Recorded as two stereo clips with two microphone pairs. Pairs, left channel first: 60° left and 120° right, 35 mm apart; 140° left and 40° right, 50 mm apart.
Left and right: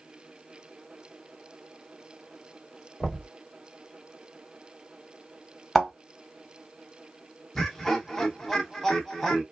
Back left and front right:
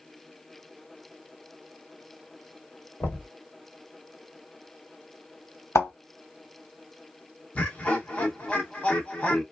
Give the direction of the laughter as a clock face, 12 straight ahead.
8 o'clock.